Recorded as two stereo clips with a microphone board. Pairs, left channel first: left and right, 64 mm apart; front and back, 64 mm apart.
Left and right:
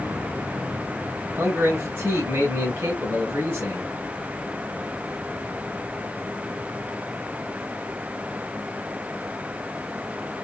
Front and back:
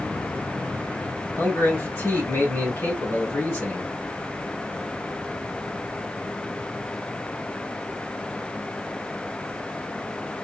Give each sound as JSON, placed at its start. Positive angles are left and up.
{"t": 1.4, "sound": "a man speaking", "azimuth_deg": -45, "distance_m": 1.9}